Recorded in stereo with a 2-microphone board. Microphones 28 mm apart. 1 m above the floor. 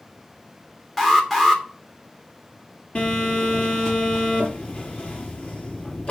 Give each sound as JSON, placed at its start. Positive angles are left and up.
{"t": 1.0, "sound": "an alarm", "side_deg": 5, "distance_m": 2.5}
{"t": 3.0, "sound": "a phone buzzing", "side_deg": 45, "distance_m": 6.0}